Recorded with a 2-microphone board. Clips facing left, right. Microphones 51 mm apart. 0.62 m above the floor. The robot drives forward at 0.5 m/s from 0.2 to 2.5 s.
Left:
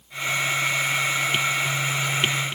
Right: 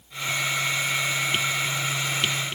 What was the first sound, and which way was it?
Only background noise.